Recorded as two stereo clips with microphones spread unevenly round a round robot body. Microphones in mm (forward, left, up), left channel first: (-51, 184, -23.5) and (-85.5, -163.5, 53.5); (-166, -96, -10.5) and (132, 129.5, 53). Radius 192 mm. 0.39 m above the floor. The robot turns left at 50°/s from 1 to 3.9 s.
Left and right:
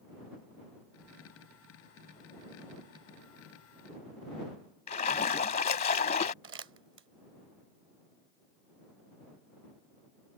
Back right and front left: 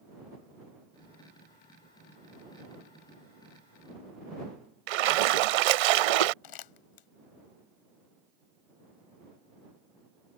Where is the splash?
15° left.